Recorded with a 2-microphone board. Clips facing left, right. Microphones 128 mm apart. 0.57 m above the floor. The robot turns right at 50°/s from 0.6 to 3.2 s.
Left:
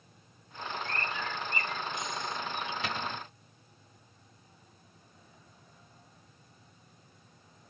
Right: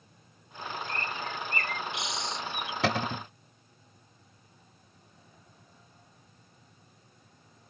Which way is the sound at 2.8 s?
75° right (ahead or behind).